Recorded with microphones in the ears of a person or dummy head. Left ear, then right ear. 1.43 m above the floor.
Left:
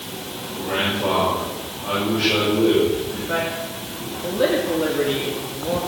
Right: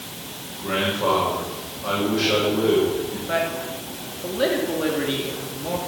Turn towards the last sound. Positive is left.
turn(degrees=-15)  # may be behind; listen again after turning